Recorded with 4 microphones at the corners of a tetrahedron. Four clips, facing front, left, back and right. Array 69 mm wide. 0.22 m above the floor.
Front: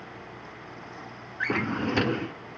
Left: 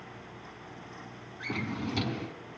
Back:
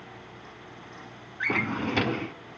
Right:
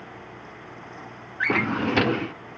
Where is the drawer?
85° right, 0.6 m.